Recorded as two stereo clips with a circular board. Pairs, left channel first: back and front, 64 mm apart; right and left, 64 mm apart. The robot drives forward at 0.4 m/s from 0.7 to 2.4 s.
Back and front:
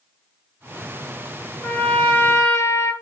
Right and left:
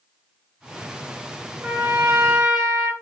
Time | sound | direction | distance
1.6 | a trumpet | 130° left | 0.8 m